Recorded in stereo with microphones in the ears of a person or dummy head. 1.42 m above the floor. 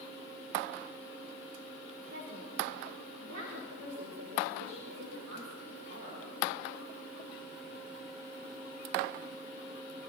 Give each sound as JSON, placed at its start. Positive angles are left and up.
{"t": 2.1, "sound": "a woman speaking", "side_deg": -80, "distance_m": 6.0}